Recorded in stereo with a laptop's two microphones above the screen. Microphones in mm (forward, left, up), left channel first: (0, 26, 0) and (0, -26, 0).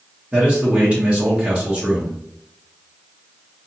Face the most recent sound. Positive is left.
turn(degrees=-20)  # may be behind; listen again after turning